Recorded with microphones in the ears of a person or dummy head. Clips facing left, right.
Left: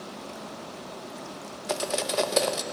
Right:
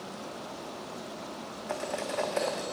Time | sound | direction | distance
1.7 | cutlery clinking | 50° left (ahead or behind) | 0.8 m